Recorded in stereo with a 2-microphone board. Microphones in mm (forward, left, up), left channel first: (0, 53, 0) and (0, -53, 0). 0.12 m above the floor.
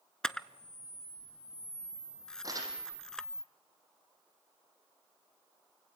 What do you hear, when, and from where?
0.2 s a camera shutter: 5° left (ahead or behind), 0.7 m
2.4 s crumpling: 35° right (ahead or behind), 5.5 m